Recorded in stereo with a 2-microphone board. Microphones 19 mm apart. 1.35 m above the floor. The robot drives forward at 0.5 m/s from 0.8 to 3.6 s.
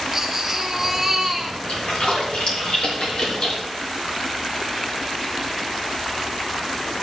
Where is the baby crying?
10° right (ahead or behind), 1.8 m.